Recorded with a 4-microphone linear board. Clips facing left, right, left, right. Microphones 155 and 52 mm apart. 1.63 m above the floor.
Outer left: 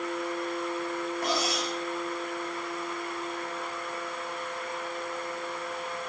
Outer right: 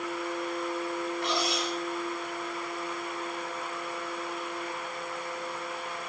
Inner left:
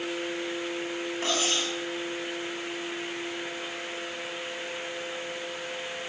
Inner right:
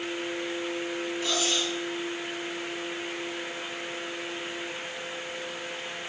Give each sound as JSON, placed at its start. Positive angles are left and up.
{"t": 1.2, "sound": "cutlery clinking", "side_deg": 45, "distance_m": 6.5}